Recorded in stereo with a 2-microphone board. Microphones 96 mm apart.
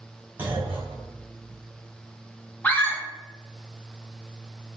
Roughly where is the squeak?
No squeak in this recording.